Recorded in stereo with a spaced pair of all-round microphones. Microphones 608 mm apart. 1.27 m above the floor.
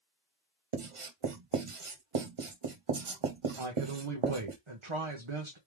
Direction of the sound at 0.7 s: 55° right (ahead or behind).